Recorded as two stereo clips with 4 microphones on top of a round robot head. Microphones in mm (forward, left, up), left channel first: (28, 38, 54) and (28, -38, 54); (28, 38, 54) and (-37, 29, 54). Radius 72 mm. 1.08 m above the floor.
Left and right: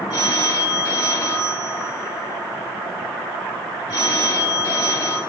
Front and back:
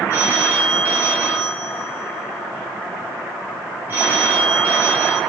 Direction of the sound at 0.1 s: 135° left.